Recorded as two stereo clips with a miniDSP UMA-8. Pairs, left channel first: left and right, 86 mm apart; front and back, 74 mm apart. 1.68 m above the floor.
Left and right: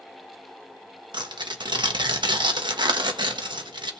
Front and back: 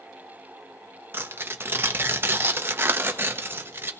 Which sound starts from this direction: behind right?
Tearing paper, at 1.1 s.